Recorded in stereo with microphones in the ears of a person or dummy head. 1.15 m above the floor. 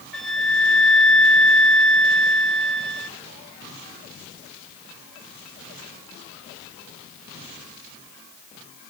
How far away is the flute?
About 0.7 m.